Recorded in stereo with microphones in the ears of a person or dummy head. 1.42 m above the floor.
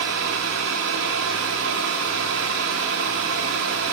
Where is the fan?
70° right (ahead or behind), 1.9 m.